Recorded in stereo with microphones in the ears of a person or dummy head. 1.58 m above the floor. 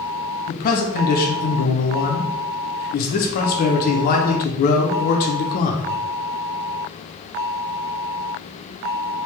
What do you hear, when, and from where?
0.5 s a man speaking: 50° left (ahead or behind), 0.6 m